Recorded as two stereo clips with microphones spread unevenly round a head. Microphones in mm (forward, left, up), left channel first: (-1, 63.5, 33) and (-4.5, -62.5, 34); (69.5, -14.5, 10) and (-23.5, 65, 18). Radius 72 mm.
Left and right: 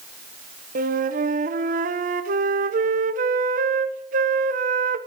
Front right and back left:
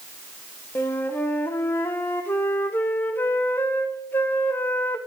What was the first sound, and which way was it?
A flute, 120° right.